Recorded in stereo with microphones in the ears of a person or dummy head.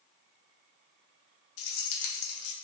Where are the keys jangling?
65° left (ahead or behind), 0.8 m.